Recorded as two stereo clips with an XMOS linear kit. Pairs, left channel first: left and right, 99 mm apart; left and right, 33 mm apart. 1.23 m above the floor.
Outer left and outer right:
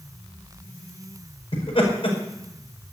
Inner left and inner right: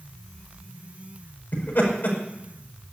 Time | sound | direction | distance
1.5 | laughter | 60° left (ahead or behind) | 5 m